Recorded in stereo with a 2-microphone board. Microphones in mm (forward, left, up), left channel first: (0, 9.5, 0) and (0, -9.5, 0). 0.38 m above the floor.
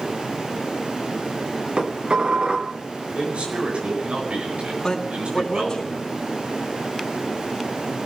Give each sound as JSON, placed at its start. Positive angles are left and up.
{"t": 1.8, "sound": "dishes clattering", "side_deg": -55, "distance_m": 2.5}
{"t": 3.1, "sound": "a man speaking", "side_deg": -80, "distance_m": 7.0}
{"t": 4.8, "sound": "a man speaking", "side_deg": 35, "distance_m": 3.5}